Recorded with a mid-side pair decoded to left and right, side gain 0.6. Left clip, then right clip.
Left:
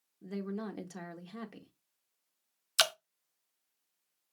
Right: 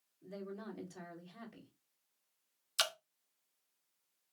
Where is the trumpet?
No trumpet in this recording.